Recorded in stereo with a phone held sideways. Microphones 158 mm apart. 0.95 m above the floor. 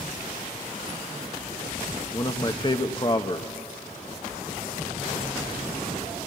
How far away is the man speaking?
About 0.9 m.